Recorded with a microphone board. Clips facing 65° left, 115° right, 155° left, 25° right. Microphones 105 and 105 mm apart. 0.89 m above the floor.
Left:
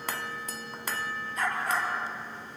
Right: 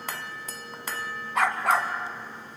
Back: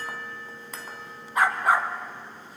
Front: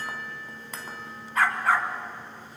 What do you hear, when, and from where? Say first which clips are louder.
1.4 s a dog barking: right 6 dB, back 2 dB; 125° right, 2 m